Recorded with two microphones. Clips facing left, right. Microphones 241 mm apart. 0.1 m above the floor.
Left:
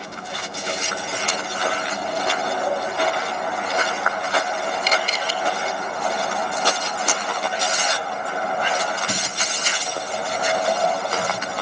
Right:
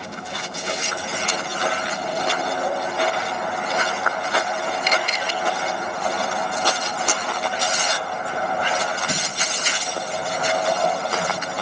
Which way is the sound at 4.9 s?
35° left (ahead or behind).